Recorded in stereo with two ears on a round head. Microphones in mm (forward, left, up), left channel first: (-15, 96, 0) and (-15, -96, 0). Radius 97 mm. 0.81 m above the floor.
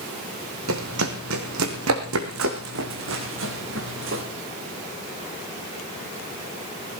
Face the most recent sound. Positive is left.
turn(degrees=-65)  # may be behind; listen again after turning